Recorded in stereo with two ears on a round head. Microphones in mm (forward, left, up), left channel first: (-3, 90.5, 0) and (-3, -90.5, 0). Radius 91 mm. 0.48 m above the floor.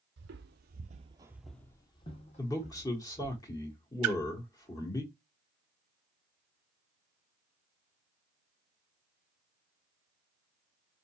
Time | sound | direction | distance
0.2 | footsteps | 60° right (ahead or behind) | 0.9 m
2.4 | a man speaking | 15° left (ahead or behind) | 1.3 m
4.0 | a splash | 85° right | 0.9 m